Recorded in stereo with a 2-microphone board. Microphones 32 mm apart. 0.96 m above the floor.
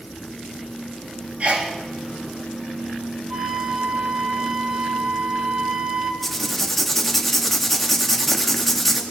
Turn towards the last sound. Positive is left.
turn(degrees=5)  # may be behind; listen again after turning